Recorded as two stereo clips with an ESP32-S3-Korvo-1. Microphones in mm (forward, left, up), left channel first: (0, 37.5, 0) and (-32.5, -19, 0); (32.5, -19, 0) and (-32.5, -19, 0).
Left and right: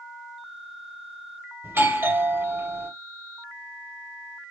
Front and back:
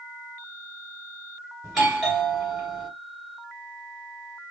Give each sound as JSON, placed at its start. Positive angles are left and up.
{"t": 1.6, "sound": "a doorbell", "azimuth_deg": -105, "distance_m": 1.9}